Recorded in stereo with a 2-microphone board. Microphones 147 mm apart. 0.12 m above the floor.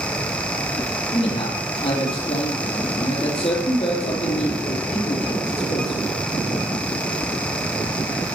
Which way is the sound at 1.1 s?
45° left (ahead or behind).